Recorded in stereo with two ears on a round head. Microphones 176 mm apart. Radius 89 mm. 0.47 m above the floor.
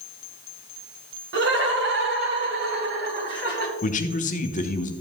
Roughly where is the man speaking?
Left.